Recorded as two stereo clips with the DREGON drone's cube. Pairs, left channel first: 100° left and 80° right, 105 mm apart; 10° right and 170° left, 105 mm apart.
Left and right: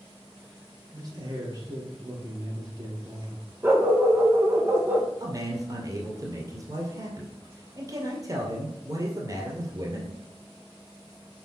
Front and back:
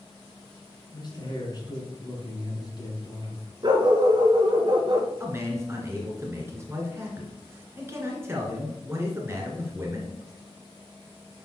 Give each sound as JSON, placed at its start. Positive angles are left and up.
{"t": 0.9, "sound": "a man speaking", "azimuth_deg": -40, "distance_m": 2.5}
{"t": 3.6, "sound": "a dog barking", "azimuth_deg": -145, "distance_m": 1.0}
{"t": 5.2, "sound": "a man speaking", "azimuth_deg": -130, "distance_m": 1.9}